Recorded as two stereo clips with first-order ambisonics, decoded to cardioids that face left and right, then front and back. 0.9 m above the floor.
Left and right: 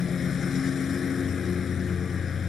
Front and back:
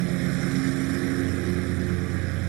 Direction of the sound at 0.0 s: 160° left.